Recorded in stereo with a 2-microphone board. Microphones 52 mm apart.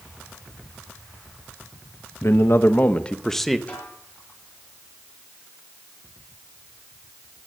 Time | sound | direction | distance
2.2 | a man speaking | 60° left (ahead or behind) | 1.0 m
3.7 | a snare drum | 25° left (ahead or behind) | 5.5 m